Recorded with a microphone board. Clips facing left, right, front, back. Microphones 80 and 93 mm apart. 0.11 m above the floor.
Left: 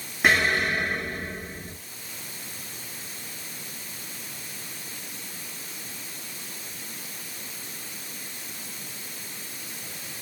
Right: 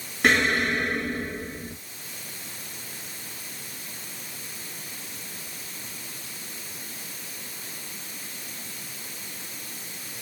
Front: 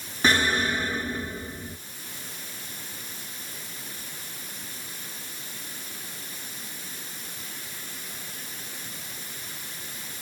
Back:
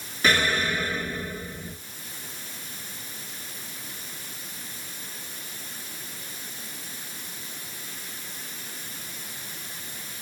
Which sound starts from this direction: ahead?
An explosion, at 0.2 s.